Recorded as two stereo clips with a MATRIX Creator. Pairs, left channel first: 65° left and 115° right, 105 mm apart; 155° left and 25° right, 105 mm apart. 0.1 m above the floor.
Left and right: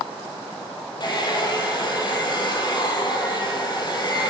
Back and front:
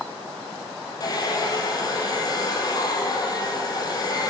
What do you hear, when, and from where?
1.0 s a hair dryer: 110° left, 2.5 m